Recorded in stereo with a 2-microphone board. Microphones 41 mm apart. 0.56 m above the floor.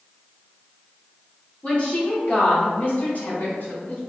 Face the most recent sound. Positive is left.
turn(degrees=60)  # may be behind; listen again after turning